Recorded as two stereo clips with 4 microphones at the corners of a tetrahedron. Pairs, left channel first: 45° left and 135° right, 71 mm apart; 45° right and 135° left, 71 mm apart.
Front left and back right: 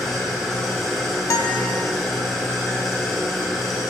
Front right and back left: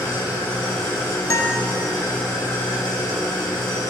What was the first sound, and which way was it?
An engine running, 50° right.